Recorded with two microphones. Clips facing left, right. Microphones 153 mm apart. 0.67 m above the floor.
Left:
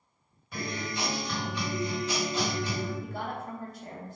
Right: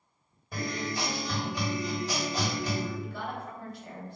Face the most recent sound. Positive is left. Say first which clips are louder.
# left 1 dB
turn(degrees=45)  # may be behind; listen again after turning